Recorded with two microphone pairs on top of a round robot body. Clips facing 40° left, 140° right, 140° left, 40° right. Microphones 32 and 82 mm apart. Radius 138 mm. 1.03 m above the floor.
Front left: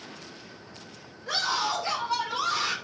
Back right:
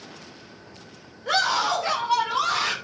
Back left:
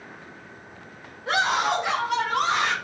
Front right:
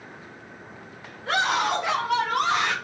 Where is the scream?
150° right, 7.5 m; by 2.7 s 130° right, 7.5 m.